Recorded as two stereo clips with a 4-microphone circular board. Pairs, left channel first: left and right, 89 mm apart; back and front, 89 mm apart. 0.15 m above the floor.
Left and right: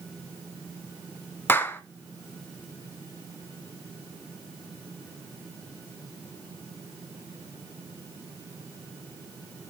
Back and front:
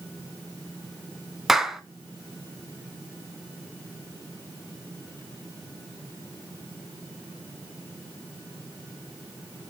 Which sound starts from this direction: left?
A clap, at 1.5 s.